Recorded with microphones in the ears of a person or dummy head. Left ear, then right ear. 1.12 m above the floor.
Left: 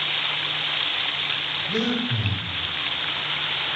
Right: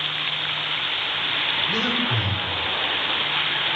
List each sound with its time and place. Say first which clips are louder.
1.7 s breathing: right 3 dB; 10° right (ahead or behind), 1.6 m